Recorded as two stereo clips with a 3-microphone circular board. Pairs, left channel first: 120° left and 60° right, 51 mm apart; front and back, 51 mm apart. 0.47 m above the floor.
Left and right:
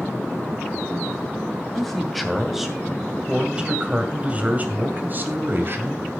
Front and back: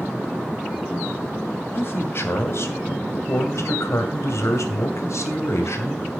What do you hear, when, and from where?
1.7 s a man speaking: 35° left, 2.5 m; by 6.2 s 25° right, 2.5 m